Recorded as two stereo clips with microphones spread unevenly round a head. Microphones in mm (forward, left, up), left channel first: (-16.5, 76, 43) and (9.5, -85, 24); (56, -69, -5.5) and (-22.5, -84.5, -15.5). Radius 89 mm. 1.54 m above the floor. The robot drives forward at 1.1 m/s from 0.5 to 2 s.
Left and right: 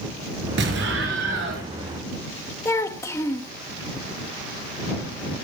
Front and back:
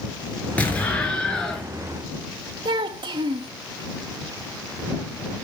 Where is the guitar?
No guitar in this recording.